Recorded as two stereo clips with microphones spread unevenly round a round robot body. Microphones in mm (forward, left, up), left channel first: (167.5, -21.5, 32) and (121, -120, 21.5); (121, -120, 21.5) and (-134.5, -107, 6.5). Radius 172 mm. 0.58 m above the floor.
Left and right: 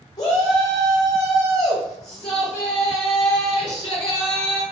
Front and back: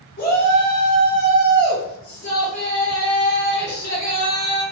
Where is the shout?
40° left, 1.0 m.